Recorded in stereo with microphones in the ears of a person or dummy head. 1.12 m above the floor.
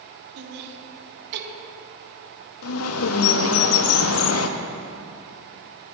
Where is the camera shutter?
No camera shutter in this recording.